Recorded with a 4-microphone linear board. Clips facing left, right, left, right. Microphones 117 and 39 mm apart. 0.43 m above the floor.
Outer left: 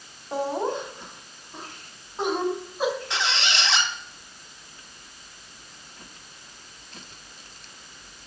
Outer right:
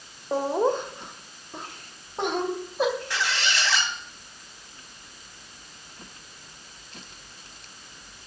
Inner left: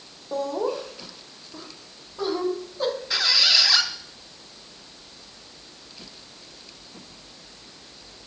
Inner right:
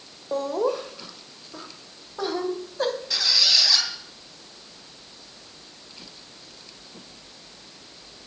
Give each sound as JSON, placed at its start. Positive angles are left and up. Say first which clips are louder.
{"t": 0.3, "sound": "laughter", "louder": "outer right 3 dB, inner right 2 dB", "side_deg": -45, "distance_m": 1.9}
{"t": 3.1, "sound": "a squeak", "louder": "even, inner left 4 dB", "side_deg": 20, "distance_m": 2.5}